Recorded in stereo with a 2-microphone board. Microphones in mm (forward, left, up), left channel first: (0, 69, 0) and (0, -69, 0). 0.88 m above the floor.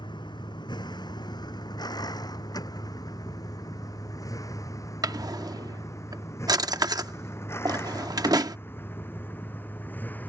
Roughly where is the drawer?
Right.